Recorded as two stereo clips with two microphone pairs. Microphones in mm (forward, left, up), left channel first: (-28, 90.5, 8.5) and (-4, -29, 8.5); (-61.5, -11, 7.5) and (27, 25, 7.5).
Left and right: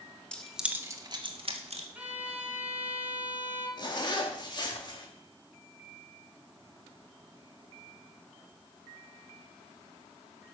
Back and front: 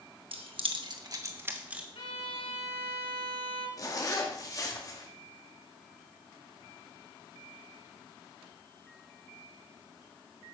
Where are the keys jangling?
20° left, 1.1 m; by 1.9 s 55° right, 1.5 m.